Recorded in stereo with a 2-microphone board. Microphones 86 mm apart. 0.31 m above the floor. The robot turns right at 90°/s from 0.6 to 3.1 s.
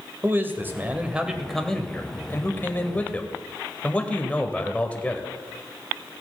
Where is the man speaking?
25° right (ahead or behind), 1.5 m; by 5.3 s 15° left (ahead or behind), 1.5 m.